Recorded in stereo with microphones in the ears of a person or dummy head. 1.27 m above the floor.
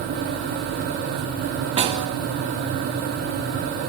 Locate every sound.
1.8 s a snare drum: 35° right (ahead or behind), 2.5 m